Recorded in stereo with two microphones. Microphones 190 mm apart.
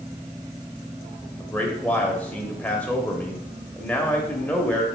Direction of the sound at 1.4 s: 10° left (ahead or behind).